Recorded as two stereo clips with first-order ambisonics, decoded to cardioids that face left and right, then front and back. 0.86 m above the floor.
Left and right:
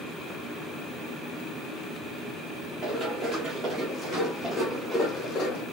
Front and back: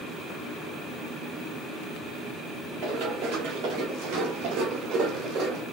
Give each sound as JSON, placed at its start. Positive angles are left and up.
{"t": 2.8, "sound": "running footsteps", "azimuth_deg": -155, "distance_m": 3.0}